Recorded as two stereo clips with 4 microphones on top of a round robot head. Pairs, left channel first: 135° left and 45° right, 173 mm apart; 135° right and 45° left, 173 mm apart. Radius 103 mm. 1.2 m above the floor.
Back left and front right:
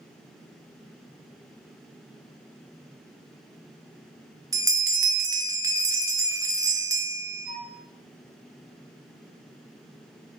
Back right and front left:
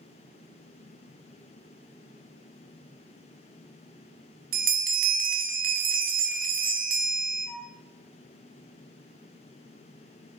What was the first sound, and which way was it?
A bell, 20° left.